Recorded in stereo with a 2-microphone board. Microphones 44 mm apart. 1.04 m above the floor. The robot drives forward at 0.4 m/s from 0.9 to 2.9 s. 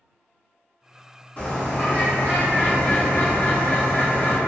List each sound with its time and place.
1.4 s a bird: 30° left (ahead or behind), 1.3 m; by 4.4 s 55° left (ahead or behind), 0.8 m